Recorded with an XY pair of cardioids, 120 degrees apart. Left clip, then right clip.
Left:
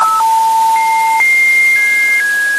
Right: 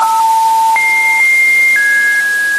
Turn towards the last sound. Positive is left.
No sound to turn to.